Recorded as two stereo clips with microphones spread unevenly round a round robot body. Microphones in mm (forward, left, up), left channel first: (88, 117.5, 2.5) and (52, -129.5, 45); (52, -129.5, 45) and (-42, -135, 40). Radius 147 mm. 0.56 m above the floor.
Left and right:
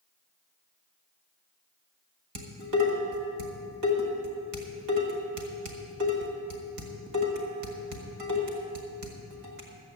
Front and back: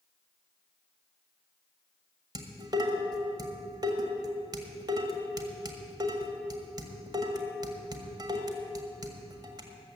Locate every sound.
2.4 s dishes clattering: 130° right, 1.8 m